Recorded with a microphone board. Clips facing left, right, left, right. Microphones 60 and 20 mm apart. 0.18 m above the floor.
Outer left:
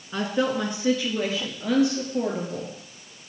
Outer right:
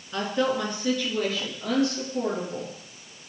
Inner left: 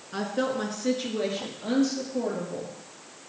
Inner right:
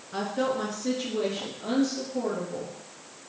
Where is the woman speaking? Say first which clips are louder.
Outer left 1 dB, even; 15° left (ahead or behind), 2.5 m; by 2.7 s 20° left (ahead or behind), 4.5 m.